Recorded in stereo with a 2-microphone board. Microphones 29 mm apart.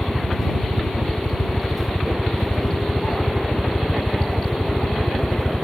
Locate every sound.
0.0 s a helicopter: 65° left (ahead or behind)